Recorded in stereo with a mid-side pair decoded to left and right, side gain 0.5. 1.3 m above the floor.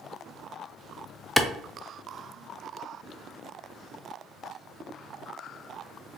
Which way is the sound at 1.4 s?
10° left.